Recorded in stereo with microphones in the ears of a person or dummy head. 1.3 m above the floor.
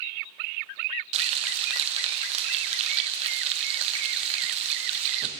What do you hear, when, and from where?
1.1 s frying: 35° right (ahead or behind), 0.8 m